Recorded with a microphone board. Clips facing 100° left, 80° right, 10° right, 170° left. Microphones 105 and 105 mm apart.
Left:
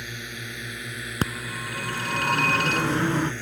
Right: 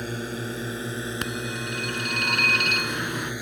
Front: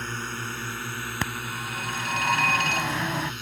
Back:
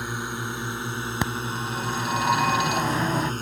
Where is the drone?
115° right; by 3.4 s 155° right.